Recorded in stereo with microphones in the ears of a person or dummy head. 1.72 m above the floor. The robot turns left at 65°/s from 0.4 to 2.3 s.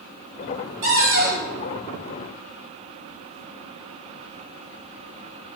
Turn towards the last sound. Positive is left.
turn(degrees=-165)